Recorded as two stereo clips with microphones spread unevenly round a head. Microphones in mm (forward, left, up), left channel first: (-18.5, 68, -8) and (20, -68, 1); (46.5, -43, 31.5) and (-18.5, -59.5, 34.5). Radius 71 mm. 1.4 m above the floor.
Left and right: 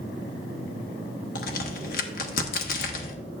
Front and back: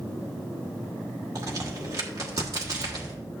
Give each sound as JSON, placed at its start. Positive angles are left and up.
{"t": 1.4, "sound": "a crack", "azimuth_deg": 135, "distance_m": 1.1}